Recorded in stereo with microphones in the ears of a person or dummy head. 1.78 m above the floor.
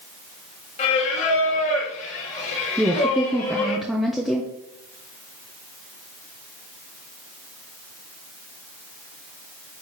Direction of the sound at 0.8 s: 40° left (ahead or behind).